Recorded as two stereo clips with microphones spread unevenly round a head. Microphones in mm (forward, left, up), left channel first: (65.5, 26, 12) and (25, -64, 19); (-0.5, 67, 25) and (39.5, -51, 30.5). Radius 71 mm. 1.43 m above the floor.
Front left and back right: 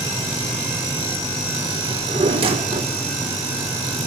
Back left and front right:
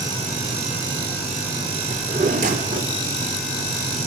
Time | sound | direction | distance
1.9 | a drawer | 105° right | 1.7 m